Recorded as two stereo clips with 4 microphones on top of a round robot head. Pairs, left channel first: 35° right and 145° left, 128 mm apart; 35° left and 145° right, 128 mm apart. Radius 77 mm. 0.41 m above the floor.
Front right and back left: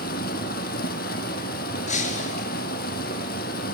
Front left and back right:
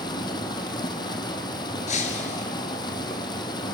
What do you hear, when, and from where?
0.0 s running water: 25° right, 4 m
1.9 s breaking glass: straight ahead, 5.5 m